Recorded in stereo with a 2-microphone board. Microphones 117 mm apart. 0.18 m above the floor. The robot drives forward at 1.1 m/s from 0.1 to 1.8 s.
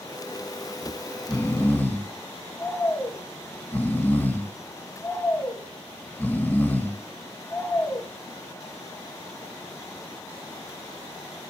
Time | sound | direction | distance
0.8 | snoring | 10° left (ahead or behind) | 2 m